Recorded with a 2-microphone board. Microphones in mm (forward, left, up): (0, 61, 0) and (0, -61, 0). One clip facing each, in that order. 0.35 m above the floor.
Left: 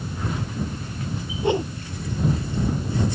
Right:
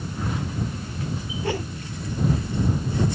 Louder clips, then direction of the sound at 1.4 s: Left 6 dB; 20° left (ahead or behind).